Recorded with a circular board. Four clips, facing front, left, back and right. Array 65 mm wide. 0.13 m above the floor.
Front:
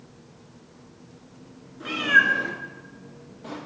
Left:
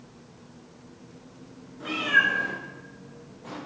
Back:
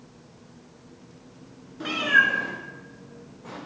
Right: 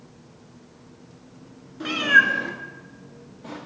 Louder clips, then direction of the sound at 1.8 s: Right 5 dB, front 1 dB; 125° right.